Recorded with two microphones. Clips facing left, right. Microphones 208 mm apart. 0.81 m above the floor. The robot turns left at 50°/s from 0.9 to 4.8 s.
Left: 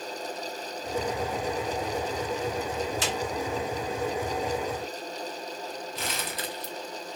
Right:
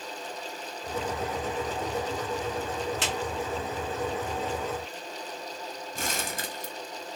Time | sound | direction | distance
3.0 | a clap | 65° right (ahead or behind) | 1.5 m
6.0 | crumpling | 50° right (ahead or behind) | 0.6 m